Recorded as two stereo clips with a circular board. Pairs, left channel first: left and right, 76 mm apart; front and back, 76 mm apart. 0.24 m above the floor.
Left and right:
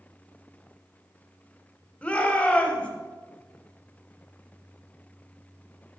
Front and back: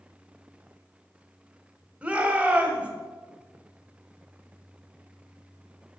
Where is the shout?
135° left, 1.2 m.